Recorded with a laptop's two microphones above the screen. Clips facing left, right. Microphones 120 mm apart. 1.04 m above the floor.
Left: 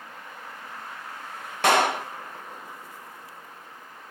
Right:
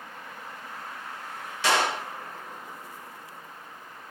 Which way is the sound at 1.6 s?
60° left (ahead or behind).